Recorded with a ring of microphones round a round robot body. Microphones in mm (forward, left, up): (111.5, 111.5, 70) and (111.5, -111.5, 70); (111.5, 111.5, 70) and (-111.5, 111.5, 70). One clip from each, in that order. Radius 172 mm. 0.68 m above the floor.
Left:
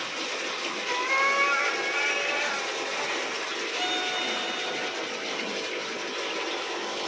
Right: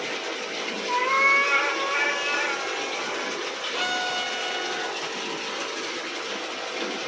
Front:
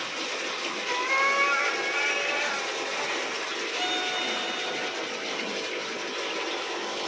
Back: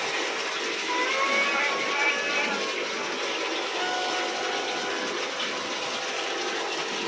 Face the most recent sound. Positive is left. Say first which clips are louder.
# right 3 dB, front 2 dB
turn(degrees=-55)